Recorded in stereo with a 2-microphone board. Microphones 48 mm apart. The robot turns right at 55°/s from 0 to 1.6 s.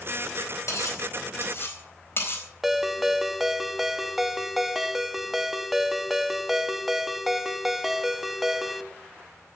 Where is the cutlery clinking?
80° left, 4 m; by 2.4 s 50° left (ahead or behind), 4 m.